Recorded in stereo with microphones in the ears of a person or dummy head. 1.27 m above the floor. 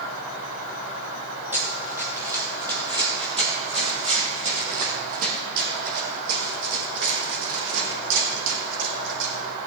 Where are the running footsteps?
15° right (ahead or behind), 3 m; by 9.3 s 75° right (ahead or behind), 4 m.